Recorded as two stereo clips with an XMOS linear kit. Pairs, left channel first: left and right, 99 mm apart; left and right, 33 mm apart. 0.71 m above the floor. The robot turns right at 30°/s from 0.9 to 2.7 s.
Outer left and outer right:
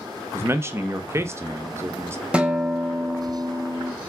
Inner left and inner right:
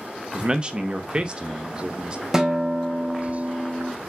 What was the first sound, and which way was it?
A man speaking, 25° right (ahead or behind).